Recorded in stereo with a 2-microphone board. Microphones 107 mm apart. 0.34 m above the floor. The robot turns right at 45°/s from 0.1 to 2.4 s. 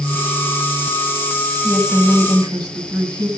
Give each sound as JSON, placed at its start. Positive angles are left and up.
{"t": 1.6, "sound": "a woman speaking", "azimuth_deg": -170, "distance_m": 2.5}